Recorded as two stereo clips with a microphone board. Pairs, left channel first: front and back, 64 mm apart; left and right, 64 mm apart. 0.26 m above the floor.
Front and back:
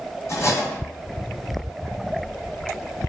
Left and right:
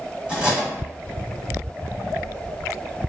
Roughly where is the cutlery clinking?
Ahead.